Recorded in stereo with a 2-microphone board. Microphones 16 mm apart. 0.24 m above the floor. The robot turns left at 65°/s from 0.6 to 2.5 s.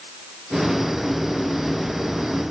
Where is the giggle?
No giggle in this recording.